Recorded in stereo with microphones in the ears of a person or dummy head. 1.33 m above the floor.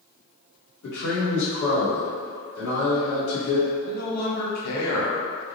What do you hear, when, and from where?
0.8 s a man speaking: 70° left (ahead or behind), 1.3 m
3.8 s a man speaking: 50° left (ahead or behind), 1.3 m